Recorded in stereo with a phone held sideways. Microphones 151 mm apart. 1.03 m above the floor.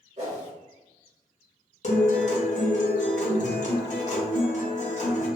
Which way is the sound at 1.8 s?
50° left (ahead or behind).